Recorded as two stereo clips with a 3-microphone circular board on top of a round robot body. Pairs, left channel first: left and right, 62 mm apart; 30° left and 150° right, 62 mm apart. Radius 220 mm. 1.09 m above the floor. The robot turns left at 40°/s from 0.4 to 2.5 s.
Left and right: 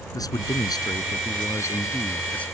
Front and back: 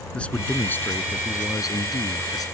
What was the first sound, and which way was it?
A man speaking, 100° left.